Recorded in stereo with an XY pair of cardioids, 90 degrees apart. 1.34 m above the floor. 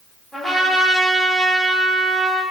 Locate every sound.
0.3 s a trumpet: 10° right, 1.1 m